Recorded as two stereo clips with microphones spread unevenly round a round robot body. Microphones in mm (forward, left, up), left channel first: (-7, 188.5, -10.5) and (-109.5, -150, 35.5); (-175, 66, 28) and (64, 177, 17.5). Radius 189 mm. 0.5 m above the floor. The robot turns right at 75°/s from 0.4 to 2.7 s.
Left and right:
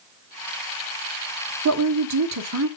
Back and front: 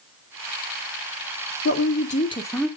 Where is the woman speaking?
140° right, 1.0 m; by 2.7 s 60° right, 1.0 m.